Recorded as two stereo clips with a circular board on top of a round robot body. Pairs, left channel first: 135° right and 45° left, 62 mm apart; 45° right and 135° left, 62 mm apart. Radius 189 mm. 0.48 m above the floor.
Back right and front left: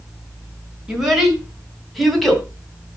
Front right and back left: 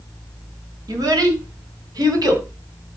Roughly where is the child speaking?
Behind left.